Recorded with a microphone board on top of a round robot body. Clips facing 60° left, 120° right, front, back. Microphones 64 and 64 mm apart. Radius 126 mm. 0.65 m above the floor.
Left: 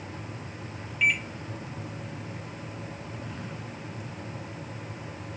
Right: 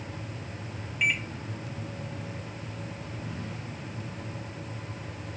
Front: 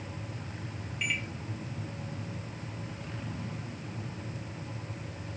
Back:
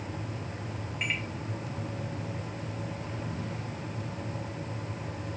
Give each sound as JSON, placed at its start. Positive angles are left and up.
{"t": 1.0, "sound": "a microwave", "azimuth_deg": 160, "distance_m": 1.1}